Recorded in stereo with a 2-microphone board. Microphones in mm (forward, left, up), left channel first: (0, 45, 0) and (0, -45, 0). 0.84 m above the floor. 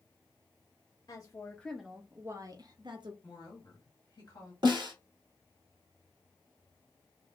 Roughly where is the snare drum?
Right.